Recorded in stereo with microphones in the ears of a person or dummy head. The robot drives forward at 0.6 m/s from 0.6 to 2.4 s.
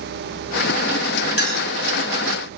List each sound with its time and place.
1.4 s a clink: 70° left (ahead or behind), 1.9 m; by 1.7 s 75° left (ahead or behind), 1.9 m